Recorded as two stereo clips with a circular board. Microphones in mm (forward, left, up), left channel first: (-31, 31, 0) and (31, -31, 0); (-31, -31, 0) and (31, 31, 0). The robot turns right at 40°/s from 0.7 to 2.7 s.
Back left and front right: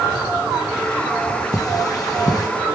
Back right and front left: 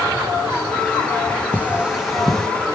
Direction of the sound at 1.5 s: 110° left.